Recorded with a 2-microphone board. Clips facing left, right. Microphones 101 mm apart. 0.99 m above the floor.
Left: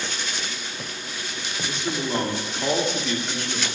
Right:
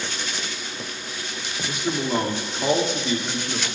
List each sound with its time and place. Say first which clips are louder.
1.6 s a man speaking: right 3 dB; 10° right (ahead or behind), 2 m